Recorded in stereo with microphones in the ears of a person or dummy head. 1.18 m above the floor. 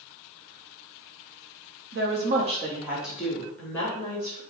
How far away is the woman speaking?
About 0.8 m.